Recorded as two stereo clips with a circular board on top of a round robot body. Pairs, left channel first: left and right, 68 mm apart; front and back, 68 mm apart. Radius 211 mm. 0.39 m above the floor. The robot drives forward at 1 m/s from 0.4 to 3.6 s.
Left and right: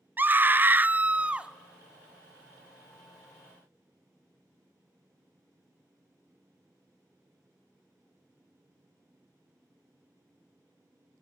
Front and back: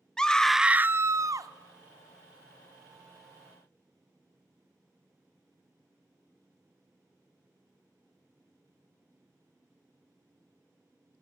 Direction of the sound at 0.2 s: 70° right.